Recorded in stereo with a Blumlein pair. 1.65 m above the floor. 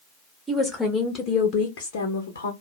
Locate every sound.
0.5 s a woman speaking: 5° right, 0.9 m; by 2.5 s 70° left, 0.8 m